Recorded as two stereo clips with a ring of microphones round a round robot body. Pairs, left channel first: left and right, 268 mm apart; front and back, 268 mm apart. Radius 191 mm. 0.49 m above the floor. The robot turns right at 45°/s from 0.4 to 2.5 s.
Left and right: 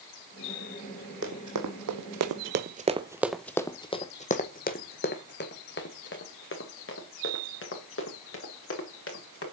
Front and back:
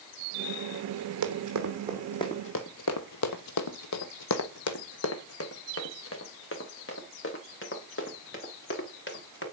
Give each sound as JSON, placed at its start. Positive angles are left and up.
{"t": 1.2, "sound": "running footsteps", "azimuth_deg": -150, "distance_m": 1.2}